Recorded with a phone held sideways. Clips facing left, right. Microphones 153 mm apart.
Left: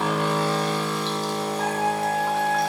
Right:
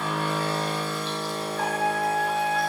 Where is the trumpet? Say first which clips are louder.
Right 1 dB; 70° right (ahead or behind), 5 m.